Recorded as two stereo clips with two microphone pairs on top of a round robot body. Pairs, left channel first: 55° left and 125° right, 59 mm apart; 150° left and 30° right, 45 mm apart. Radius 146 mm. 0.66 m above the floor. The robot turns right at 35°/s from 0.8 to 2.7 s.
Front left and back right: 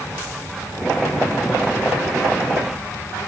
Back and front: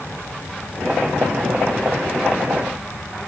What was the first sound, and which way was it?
Only background noise.